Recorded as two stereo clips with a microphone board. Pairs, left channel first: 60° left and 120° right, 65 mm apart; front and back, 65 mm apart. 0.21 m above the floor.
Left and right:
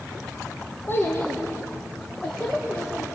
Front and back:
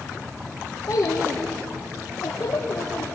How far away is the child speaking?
About 1.6 m.